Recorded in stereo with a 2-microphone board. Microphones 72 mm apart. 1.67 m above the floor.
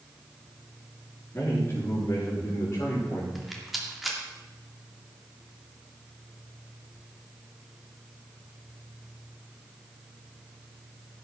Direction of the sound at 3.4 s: Centre (ahead or behind).